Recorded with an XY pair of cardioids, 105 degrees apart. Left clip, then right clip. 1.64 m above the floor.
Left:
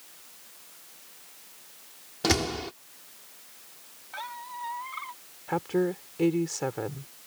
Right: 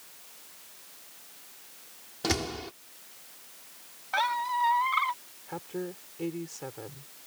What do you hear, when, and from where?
2.2 s a door slam: 30° left
4.1 s a squeak: 70° right
5.5 s a woman speaking: 60° left